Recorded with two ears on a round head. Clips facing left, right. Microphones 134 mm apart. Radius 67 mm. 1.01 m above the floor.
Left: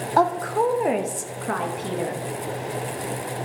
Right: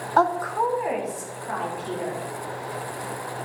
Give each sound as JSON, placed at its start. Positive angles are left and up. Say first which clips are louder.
{"t": 0.2, "sound": "a woman speaking", "louder": "left 1 dB", "side_deg": 10, "distance_m": 0.5}